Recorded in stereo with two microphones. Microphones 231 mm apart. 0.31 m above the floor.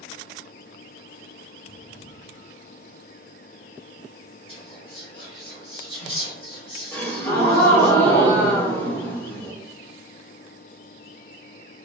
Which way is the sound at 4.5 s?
25° left (ahead or behind).